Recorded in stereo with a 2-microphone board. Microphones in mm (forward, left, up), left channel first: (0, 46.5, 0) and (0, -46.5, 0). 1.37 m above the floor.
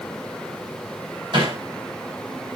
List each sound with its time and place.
1.3 s hammering: 55° right (ahead or behind), 5 m